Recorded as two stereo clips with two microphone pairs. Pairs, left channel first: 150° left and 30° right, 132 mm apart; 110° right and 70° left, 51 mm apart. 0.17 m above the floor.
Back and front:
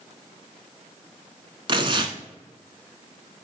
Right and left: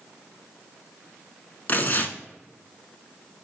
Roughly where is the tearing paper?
Ahead right.